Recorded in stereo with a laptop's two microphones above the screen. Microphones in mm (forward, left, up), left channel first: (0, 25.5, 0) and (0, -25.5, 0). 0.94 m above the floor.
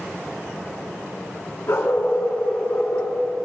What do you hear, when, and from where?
1.7 s a dog barking: 70° left (ahead or behind), 3 m; by 3.1 s 80° left, 3.5 m